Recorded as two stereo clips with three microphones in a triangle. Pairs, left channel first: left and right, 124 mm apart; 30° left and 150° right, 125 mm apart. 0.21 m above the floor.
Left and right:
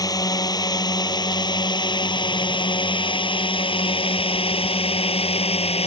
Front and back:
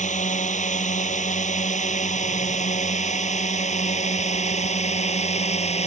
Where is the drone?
30° left; by 5.9 s 55° left.